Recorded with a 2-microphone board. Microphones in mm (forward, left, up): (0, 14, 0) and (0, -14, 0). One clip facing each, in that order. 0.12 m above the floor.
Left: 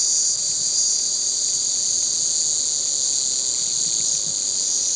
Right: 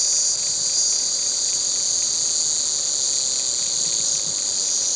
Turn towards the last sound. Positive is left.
turn(degrees=-5)  # may be behind; listen again after turning